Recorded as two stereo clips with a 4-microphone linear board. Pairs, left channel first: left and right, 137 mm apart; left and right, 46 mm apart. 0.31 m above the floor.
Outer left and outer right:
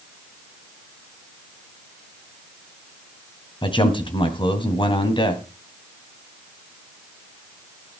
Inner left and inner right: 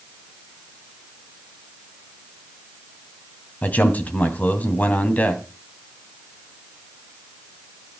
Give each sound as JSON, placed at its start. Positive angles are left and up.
{"t": 3.6, "sound": "a man speaking", "side_deg": 35, "distance_m": 2.5}